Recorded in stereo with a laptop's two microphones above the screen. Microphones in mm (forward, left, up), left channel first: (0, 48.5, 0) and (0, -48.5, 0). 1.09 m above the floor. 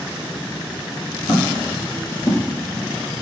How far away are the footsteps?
About 2 m.